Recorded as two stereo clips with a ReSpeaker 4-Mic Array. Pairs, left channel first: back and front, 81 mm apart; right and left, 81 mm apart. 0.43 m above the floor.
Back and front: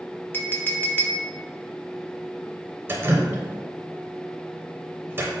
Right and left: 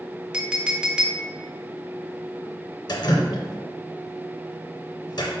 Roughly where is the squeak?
No squeak in this recording.